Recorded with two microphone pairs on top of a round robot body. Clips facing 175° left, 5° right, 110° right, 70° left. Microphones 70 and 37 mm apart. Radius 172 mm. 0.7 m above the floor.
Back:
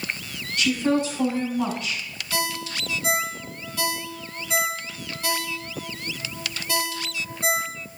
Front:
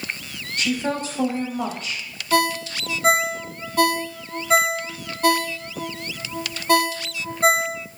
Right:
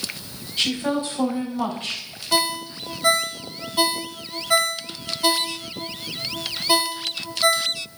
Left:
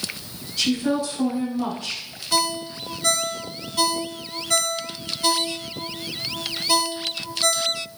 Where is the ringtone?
40° right, 1.0 m.